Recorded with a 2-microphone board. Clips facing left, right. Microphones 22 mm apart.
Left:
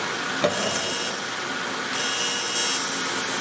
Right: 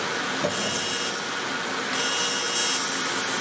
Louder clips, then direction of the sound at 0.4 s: Left 2 dB; 40° left (ahead or behind).